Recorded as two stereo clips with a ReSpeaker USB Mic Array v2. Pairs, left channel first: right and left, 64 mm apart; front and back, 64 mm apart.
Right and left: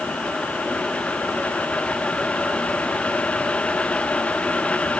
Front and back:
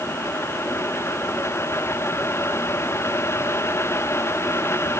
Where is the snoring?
I don't hear snoring.